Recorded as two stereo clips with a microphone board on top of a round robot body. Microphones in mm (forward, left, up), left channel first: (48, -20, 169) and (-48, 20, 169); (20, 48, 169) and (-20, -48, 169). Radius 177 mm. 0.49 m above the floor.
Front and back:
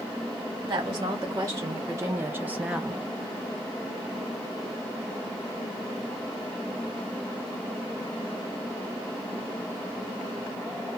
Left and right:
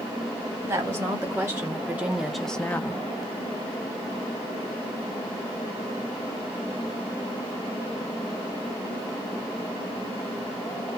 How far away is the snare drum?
I don't hear a snare drum.